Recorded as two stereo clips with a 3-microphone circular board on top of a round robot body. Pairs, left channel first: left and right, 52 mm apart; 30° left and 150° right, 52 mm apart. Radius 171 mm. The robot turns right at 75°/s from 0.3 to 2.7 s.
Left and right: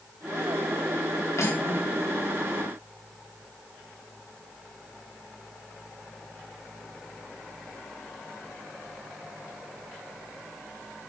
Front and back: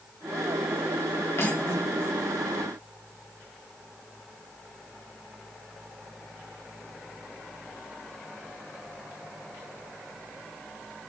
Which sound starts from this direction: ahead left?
Cutlery clinking, at 1.4 s.